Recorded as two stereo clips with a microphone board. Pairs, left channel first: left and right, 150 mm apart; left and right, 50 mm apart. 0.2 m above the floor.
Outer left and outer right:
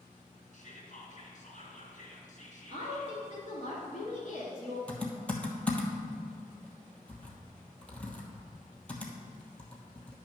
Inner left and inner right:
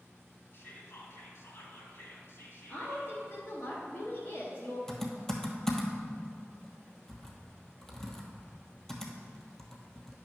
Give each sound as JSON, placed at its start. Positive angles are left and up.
{"t": 0.5, "sound": "whispering", "side_deg": 55, "distance_m": 2.5}
{"t": 2.7, "sound": "a woman speaking", "side_deg": 45, "distance_m": 2.5}
{"t": 4.9, "sound": "typing on a keyboard", "side_deg": 10, "distance_m": 1.1}